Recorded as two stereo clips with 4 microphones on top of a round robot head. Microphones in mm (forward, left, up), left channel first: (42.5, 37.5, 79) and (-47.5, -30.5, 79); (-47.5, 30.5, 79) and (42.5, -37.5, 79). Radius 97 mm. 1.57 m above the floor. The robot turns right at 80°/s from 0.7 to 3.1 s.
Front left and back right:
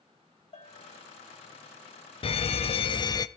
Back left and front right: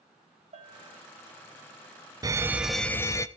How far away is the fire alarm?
About 1.0 m.